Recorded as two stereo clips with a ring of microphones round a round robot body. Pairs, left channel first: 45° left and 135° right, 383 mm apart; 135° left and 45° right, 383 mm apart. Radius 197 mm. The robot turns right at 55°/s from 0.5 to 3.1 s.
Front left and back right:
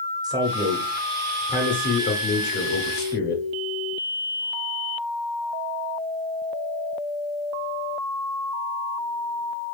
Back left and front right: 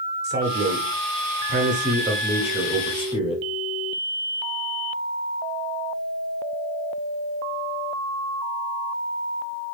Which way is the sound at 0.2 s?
65° right.